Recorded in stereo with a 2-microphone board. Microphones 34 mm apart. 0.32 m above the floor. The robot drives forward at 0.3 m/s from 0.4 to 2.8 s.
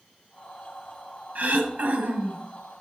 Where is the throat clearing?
55° right (ahead or behind), 2 m; by 2.4 s 60° right (ahead or behind), 2 m.